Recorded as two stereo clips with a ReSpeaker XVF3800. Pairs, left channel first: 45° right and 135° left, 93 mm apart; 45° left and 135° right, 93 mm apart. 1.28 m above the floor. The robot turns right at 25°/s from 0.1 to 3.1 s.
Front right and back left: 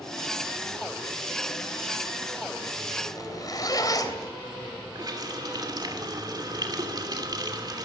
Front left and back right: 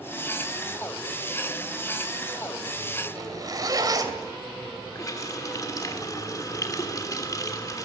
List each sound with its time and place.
3.1 s a zipper: 90° right, 3 m
5.0 s a running tap: 95° left, 2.5 m